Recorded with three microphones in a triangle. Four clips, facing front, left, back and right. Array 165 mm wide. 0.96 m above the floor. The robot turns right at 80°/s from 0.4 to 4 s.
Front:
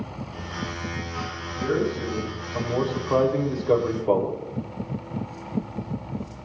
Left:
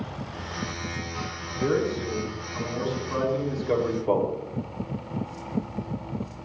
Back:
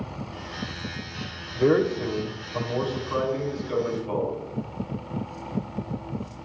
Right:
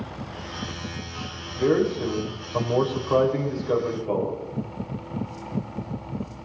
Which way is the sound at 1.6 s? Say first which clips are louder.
Right 4 dB, back 4 dB; 165° right.